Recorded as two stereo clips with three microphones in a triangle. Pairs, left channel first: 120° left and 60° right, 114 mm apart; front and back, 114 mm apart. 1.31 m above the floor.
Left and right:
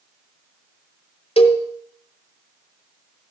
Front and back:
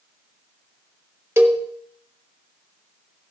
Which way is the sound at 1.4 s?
115° left.